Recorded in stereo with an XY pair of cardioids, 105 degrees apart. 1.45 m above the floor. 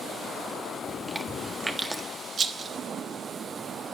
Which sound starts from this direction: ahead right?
A rattle, at 2.4 s.